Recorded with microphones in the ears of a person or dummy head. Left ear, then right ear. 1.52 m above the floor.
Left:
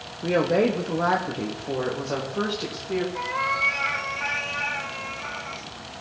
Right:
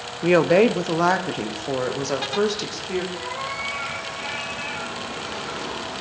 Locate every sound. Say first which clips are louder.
0.2 s a woman speaking: right 5 dB; 50° right (ahead or behind), 0.5 m; by 3.0 s 85° right, 2.5 m
3.1 s a cat meowing: left 4 dB; 15° left (ahead or behind), 1.0 m